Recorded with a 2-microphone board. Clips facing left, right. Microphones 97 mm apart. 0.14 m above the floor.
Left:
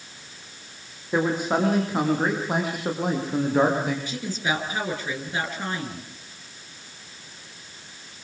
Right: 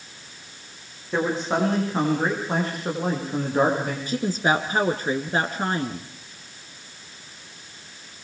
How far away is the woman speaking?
About 2 m.